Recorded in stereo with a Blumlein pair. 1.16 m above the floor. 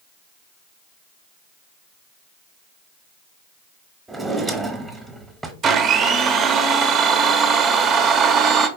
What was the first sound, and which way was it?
A drawer, 5° right.